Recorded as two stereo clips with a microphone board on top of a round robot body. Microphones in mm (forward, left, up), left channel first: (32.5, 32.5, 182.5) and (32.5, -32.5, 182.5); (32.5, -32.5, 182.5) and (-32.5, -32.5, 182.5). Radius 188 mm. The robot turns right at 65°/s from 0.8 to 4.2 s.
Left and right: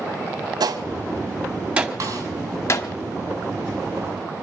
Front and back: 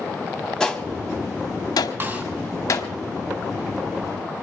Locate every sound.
0.6 s a gunshot: 80° right, 1.2 m; by 2.9 s 60° left, 1.2 m
2.0 s a snare drum: 125° right, 4 m; by 2.2 s 110° right, 4 m